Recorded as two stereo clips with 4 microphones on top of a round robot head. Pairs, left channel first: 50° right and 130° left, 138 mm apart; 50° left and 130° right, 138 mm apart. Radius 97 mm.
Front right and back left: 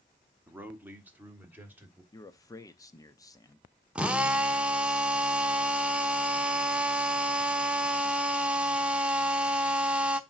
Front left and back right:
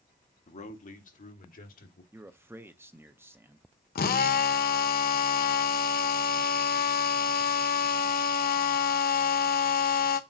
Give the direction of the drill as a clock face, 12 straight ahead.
10 o'clock.